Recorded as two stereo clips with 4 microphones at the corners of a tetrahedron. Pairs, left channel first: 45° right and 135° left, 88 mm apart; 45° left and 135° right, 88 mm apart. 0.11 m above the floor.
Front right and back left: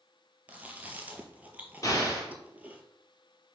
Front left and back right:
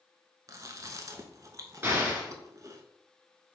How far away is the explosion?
About 1.9 m.